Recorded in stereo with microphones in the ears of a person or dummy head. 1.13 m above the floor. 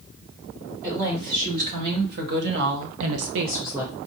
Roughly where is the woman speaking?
Right.